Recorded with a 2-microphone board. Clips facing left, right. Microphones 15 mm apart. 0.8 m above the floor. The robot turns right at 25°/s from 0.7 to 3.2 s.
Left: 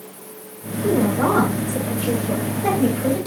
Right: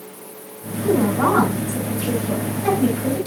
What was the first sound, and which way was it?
A woman speaking, 55° right.